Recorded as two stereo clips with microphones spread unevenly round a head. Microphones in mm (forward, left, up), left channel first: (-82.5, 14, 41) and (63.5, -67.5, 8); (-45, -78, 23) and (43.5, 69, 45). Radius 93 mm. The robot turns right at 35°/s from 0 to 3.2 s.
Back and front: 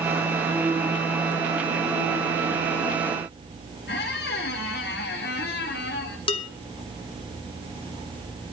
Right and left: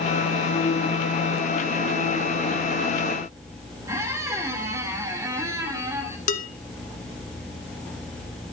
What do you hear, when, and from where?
3.9 s a squeak: 130° left, 2.5 m
6.3 s dishes clattering: 165° right, 1.4 m